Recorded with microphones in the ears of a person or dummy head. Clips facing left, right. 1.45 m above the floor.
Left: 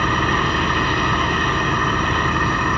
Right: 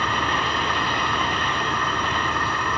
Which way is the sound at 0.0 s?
55° left (ahead or behind).